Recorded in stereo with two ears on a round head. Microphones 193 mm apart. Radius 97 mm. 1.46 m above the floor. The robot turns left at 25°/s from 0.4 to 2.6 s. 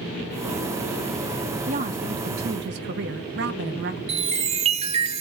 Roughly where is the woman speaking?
Right.